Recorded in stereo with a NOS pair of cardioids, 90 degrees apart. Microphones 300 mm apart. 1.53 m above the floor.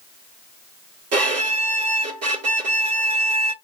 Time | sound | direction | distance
1.1 | a violin | 55° right | 1.8 m